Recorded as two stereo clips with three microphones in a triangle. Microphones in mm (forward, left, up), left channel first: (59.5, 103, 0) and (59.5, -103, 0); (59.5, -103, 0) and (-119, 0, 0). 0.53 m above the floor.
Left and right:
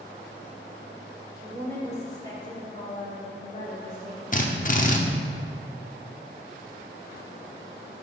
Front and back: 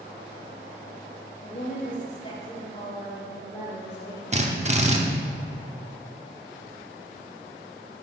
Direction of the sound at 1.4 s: 5° left.